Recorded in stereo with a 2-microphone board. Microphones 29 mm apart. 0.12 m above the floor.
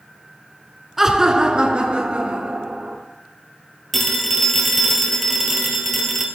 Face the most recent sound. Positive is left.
turn(degrees=5)  # may be behind; listen again after turning